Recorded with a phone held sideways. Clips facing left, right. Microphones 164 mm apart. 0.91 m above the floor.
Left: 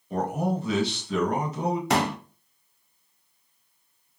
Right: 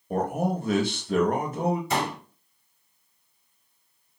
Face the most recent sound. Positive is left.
turn(degrees=70)  # may be behind; listen again after turning